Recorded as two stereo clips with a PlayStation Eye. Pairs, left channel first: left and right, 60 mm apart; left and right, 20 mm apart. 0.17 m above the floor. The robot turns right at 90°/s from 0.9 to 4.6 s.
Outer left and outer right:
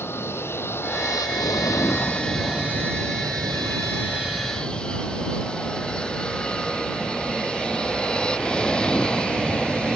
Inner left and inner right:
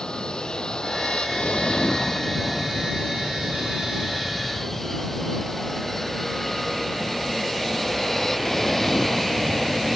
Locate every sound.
0.0 s an aircraft: 40° left; by 10.0 s 15° left